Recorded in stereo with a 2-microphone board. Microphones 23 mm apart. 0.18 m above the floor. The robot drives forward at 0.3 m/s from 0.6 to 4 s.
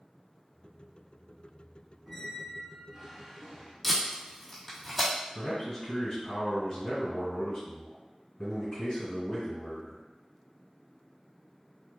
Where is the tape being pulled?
5° left (ahead or behind), 1.5 m.